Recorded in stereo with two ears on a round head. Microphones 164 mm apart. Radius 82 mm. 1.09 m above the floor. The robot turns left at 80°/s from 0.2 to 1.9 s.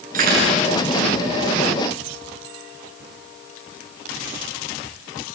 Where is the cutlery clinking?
45° right, 9.5 m; by 0.6 s 80° right, 9.5 m.